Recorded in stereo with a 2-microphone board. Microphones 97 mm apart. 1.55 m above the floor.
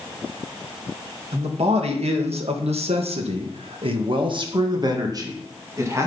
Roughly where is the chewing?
No chewing in this recording.